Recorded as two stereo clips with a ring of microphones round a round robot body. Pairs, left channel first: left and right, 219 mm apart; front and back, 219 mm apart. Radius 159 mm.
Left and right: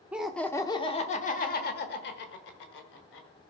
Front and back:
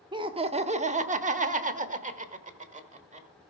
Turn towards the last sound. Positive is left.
turn(degrees=125)